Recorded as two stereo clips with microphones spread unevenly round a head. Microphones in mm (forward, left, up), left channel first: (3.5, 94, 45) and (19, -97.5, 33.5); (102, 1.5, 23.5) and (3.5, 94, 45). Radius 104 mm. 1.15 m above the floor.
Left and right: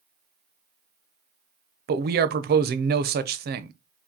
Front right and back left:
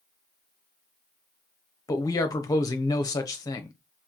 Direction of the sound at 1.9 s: 95° right.